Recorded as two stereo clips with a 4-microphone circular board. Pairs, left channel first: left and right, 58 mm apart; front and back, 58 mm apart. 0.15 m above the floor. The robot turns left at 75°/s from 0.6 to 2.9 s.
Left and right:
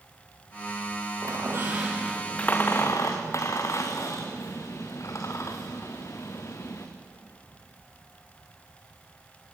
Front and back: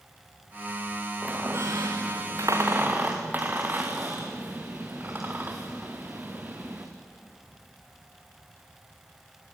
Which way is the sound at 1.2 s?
110° right.